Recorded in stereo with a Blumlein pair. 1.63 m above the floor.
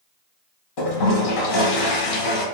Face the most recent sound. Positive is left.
turn(degrees=40)